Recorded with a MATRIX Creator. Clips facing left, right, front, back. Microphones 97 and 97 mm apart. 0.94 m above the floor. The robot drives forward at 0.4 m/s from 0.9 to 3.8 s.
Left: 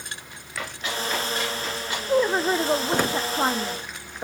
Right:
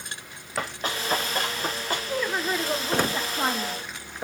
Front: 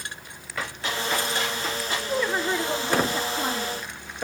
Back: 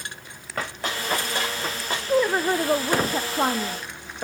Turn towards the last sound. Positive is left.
turn(degrees=160)